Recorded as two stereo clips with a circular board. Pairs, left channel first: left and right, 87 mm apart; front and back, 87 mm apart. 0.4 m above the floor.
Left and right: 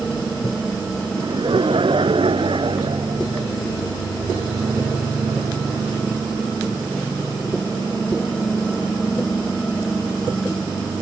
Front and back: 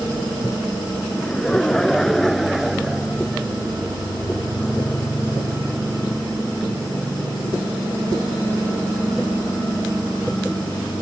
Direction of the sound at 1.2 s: 80° right.